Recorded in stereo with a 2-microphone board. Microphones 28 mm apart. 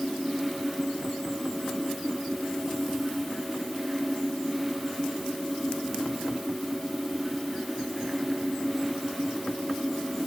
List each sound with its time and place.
Only background noise.